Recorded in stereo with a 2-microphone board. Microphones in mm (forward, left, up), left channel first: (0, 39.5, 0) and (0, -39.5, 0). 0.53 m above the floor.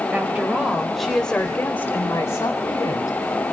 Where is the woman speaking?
20° right (ahead or behind), 2.5 m; by 3.1 s 50° left (ahead or behind), 3 m.